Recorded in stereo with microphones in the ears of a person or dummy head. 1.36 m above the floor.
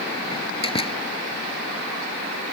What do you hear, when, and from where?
0.3 s a door slam: 20° left (ahead or behind)